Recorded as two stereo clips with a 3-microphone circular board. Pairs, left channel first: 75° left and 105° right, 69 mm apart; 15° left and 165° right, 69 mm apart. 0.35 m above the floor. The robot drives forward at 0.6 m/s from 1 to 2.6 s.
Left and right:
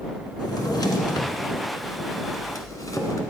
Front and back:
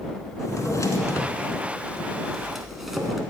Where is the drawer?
55° left, 1.2 m; by 3.2 s 110° left, 1.0 m.